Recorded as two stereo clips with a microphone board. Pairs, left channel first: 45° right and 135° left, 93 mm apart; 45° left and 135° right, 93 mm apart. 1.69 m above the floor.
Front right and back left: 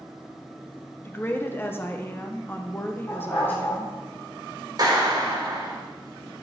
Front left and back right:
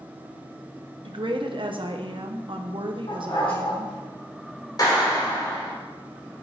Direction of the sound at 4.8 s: 90° left.